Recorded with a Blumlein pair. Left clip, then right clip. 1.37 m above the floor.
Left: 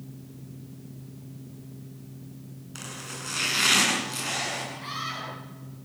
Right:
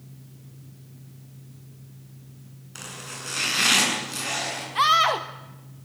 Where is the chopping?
5° right, 8 m.